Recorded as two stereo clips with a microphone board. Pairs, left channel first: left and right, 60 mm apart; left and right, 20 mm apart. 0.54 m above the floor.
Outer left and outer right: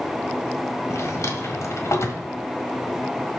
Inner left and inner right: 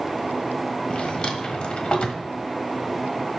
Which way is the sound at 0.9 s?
50° left (ahead or behind).